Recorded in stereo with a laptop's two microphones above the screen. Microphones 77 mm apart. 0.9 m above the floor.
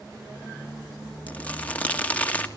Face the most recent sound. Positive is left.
turn(degrees=20)  # may be behind; listen again after turning